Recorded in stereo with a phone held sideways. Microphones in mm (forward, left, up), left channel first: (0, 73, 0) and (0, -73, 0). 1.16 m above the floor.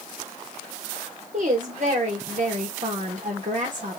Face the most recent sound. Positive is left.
turn(degrees=-55)  # may be behind; listen again after turning